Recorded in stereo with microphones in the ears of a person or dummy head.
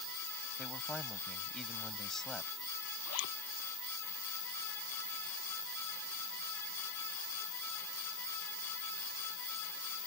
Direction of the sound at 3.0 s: 80° left.